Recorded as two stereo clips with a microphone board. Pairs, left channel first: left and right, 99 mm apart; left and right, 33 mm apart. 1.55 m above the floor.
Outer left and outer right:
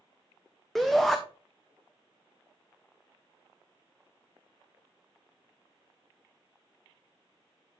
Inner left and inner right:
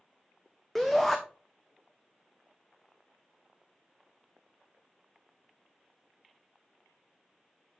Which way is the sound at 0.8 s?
5° left (ahead or behind).